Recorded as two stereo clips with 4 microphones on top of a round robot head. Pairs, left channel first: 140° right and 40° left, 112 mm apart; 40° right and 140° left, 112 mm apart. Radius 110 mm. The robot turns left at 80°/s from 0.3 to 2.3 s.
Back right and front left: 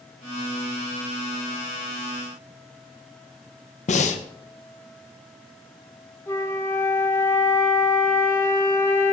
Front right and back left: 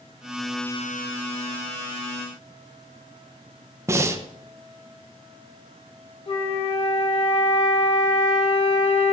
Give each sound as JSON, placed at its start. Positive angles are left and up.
{"t": 3.9, "sound": "breathing", "azimuth_deg": -150, "distance_m": 0.7}
{"t": 6.3, "sound": "a flute", "azimuth_deg": -70, "distance_m": 1.2}